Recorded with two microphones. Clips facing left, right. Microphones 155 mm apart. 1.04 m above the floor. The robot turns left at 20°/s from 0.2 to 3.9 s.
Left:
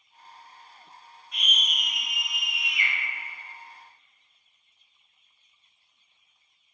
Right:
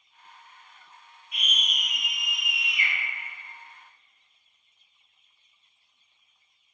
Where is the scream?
10° right, 1.2 m; by 2.9 s 45° right, 1.2 m.